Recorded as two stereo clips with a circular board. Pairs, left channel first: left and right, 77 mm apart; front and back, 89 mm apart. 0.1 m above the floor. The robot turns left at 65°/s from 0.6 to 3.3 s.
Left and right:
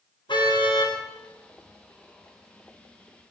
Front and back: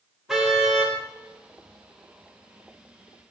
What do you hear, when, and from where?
0.3 s a car horn: 95° left, 9 m; by 1.0 s 70° left, 9 m